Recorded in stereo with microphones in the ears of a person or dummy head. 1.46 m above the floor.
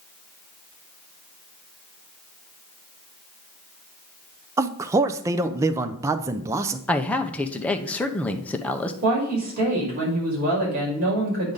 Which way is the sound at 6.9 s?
5° left (ahead or behind).